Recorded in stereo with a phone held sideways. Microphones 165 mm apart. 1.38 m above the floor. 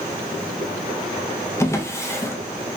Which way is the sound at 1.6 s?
15° left (ahead or behind).